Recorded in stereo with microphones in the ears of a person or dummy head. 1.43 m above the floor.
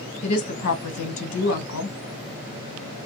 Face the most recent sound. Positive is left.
turn(degrees=75)  # may be behind; listen again after turning